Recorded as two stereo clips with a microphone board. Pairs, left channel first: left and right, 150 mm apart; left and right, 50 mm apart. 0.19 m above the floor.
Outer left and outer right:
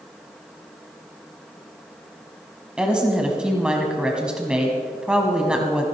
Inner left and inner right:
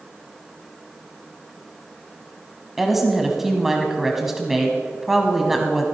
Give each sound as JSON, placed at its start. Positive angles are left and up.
{"t": 2.8, "sound": "a woman speaking", "side_deg": -5, "distance_m": 1.1}